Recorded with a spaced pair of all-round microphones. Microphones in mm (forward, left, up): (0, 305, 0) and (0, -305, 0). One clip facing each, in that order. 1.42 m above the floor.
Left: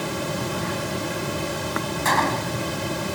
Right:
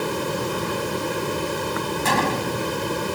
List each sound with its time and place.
0.0 s running water: 10° left (ahead or behind)
2.0 s a gunshot: 55° right (ahead or behind)